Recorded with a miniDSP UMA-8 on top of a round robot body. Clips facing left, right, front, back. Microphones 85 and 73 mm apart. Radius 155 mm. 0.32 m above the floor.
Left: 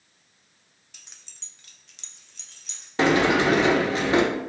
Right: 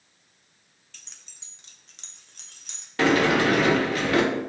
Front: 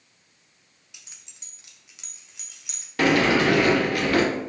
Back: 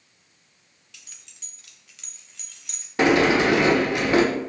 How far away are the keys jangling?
About 0.7 m.